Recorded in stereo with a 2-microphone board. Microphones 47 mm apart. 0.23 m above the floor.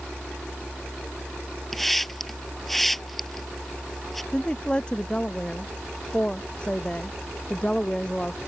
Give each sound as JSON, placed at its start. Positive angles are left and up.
{"t": 1.7, "sound": "a hiss", "side_deg": 5}
{"t": 4.3, "sound": "a woman speaking", "side_deg": 20}